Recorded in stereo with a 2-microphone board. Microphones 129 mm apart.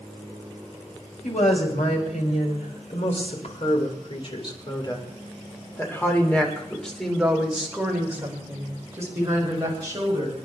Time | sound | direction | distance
1.2 | a woman speaking | 70° left (ahead or behind) | 4.5 m